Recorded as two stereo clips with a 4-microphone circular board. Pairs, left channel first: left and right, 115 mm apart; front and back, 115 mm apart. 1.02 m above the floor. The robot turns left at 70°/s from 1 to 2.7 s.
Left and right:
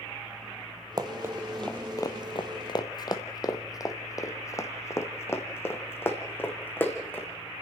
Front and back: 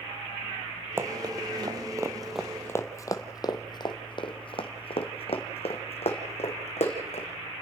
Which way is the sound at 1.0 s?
120° right.